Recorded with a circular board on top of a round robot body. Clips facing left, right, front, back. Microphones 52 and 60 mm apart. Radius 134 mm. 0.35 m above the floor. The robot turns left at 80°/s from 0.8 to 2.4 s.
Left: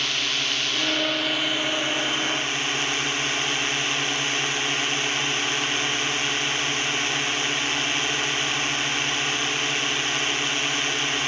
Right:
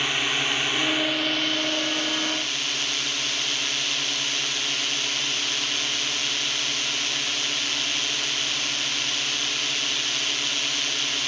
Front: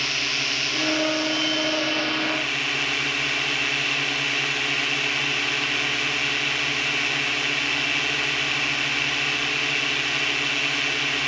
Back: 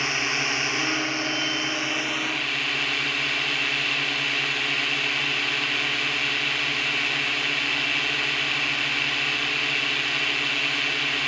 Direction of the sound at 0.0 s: 145° right.